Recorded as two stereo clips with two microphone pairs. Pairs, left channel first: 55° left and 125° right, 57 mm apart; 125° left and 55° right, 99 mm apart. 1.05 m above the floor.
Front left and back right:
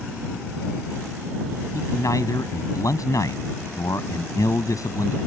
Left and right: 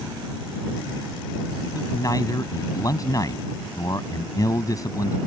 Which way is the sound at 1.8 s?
70° left.